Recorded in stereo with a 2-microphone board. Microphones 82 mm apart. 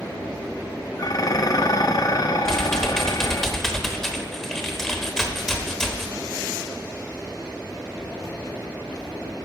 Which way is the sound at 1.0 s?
50° left (ahead or behind).